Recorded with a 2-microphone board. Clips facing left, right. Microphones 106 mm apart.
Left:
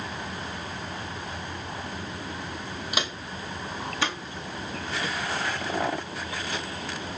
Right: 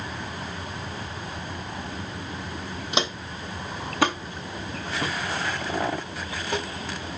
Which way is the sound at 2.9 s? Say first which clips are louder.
Right 6 dB; 25° right (ahead or behind).